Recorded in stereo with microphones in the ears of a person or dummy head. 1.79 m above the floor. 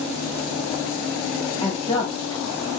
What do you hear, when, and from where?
1.6 s a woman speaking: 25° left (ahead or behind), 1.2 m